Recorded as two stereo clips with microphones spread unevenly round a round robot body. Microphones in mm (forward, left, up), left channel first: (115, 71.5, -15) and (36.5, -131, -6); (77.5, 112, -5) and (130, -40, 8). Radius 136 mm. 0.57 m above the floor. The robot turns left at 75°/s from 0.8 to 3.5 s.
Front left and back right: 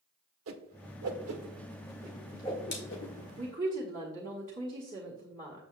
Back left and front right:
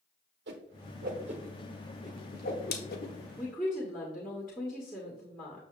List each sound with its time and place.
0.5 s a whoosh: 95° right, 0.9 m; by 3.2 s 85° left, 0.9 m
3.4 s a woman speaking: 155° right, 1.3 m; by 5.6 s 165° right, 1.3 m